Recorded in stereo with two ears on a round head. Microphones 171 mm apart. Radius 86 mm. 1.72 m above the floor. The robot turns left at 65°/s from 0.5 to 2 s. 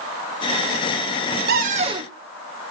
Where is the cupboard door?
125° right, 1.2 m; by 2.1 s 155° right, 1.2 m.